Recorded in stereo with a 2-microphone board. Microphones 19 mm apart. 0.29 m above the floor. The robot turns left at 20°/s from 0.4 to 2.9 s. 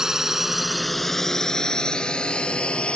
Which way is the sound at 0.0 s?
25° right (ahead or behind).